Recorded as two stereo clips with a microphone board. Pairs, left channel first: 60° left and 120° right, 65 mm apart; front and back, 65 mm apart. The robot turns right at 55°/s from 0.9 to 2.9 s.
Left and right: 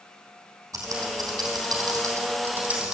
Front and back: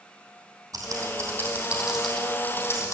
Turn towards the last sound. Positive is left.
turn(degrees=-40)